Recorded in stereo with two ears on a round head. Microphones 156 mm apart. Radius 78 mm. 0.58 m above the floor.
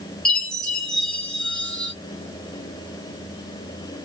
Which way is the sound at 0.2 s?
5° left (ahead or behind).